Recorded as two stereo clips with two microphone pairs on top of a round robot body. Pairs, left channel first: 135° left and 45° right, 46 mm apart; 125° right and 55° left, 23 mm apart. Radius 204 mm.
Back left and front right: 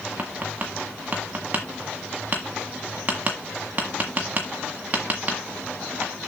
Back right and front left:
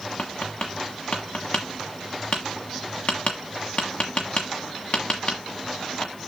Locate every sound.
0.2 s tapping: 100° right, 1.3 m